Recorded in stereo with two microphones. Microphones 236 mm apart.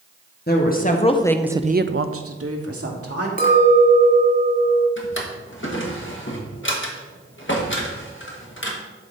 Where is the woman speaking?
45° left (ahead or behind), 1.2 m; by 3.3 s 80° right, 1.7 m.